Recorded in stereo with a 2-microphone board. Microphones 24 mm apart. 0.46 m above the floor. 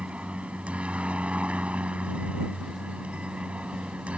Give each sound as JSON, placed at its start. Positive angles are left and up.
{"t": 0.0, "sound": "a helicopter", "side_deg": -65}